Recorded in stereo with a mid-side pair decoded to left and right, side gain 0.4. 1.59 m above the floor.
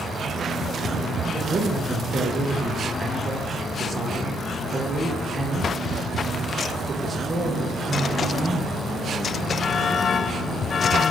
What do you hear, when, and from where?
1.3 s a man speaking: 30° right, 1.2 m